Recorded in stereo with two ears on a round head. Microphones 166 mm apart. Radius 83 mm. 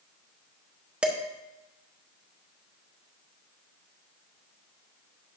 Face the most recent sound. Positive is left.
turn(degrees=-5)  # may be behind; listen again after turning